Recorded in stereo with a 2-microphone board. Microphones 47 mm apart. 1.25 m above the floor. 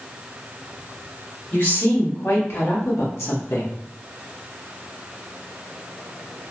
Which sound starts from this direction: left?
A woman speaking, at 1.5 s.